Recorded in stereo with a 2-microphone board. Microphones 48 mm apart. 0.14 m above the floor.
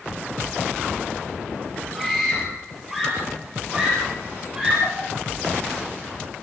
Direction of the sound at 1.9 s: 5° left (ahead or behind).